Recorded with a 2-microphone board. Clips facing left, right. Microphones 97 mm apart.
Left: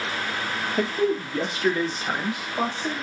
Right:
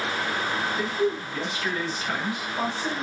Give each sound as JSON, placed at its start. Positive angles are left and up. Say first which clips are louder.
{"t": 0.8, "sound": "a man speaking", "louder": "left 5 dB", "side_deg": 70, "distance_m": 0.6}